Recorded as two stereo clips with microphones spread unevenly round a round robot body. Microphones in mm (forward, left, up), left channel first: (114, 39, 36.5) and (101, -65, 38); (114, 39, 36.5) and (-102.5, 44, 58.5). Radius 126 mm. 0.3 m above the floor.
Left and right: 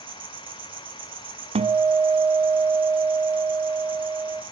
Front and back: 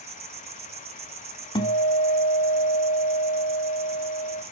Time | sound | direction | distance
0.0 | an insect | 120° right | 2 m
1.6 | a guitar | 75° right | 1.2 m